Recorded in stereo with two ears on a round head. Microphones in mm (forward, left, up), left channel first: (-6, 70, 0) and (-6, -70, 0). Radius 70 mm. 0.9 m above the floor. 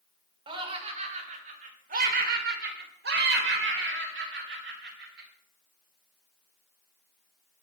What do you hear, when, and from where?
0.5 s laughter: 35° right (ahead or behind), 3 m; by 5.3 s 75° right (ahead or behind), 4 m